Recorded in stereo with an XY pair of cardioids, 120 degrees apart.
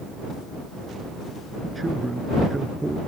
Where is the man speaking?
15° right.